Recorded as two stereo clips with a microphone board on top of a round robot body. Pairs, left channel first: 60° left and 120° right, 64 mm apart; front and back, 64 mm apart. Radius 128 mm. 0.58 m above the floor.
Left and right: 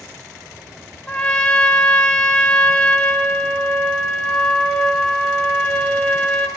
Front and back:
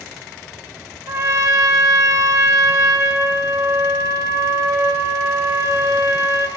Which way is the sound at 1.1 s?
135° left.